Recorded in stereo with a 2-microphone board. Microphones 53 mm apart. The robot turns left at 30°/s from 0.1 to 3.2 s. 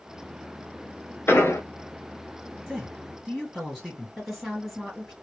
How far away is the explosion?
About 0.7 m.